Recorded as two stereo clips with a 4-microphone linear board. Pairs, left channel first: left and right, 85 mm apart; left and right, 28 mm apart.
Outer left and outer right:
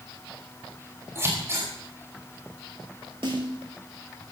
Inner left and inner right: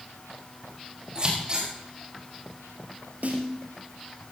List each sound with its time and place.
1.1 s scissors: 30° right (ahead or behind), 5 m
3.2 s a snare drum: 70° right (ahead or behind), 5.5 m